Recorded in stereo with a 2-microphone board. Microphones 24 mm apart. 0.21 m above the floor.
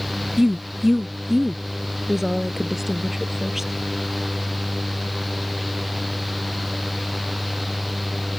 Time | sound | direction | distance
0.4 | a woman speaking | 15° right (ahead or behind) | ?